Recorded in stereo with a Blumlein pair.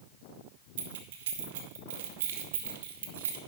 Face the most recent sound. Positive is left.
turn(degrees=-55)